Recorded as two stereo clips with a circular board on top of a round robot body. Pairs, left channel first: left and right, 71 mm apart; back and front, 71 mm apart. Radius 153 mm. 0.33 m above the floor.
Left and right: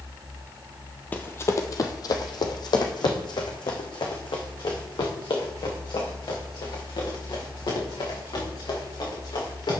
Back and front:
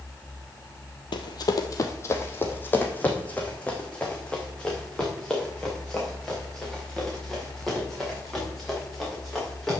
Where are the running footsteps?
160° left, 0.8 m; by 9.8 s 95° left, 5.5 m.